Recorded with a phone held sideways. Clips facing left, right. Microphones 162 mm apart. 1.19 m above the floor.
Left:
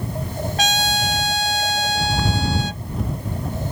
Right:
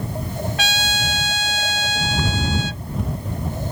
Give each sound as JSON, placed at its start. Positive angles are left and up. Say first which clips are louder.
{"t": 0.6, "sound": "a trumpet", "louder": "left 4 dB", "side_deg": 40}